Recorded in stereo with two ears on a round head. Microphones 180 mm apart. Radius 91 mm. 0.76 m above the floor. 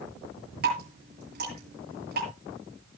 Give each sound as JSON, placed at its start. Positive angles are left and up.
{"t": 0.6, "sound": "dripping", "side_deg": -50, "distance_m": 8.0}